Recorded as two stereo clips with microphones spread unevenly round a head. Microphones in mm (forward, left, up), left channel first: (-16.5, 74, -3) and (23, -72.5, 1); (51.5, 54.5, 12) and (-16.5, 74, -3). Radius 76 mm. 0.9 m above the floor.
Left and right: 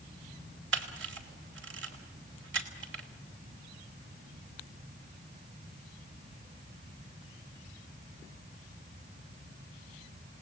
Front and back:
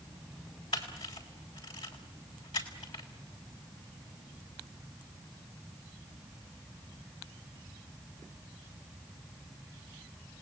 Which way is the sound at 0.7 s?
70° right.